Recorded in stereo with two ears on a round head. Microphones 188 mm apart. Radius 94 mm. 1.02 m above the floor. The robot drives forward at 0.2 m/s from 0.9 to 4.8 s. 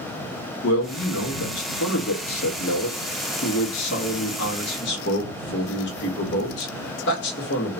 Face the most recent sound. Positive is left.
turn(degrees=55)  # may be behind; listen again after turning